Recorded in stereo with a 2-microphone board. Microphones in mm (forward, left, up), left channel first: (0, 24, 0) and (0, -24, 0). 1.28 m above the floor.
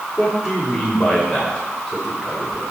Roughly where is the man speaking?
Centre.